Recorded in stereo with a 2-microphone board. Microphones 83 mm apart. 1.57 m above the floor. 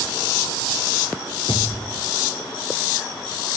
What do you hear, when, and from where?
1.5 s a thud: 75° left (ahead or behind), 6 m